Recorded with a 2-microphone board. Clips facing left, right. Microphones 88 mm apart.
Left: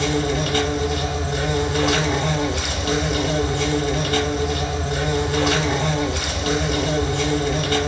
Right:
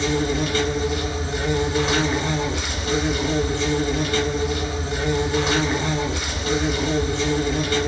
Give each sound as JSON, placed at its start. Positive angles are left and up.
{"t": 0.0, "sound": "an insect", "side_deg": 55, "distance_m": 1.0}